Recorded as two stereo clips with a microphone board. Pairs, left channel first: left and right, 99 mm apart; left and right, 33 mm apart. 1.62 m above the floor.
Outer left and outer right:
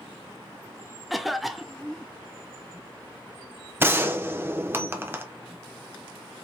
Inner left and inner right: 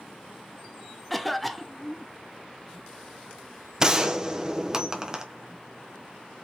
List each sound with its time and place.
1.1 s a cough: centre (ahead or behind), 0.6 m
3.8 s a gunshot: 20° right (ahead or behind), 0.8 m